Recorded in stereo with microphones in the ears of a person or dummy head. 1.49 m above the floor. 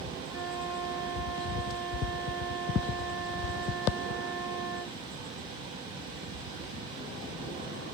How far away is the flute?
About 2.5 m.